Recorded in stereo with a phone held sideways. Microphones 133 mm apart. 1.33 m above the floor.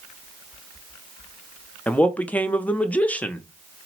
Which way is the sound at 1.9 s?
10° left (ahead or behind).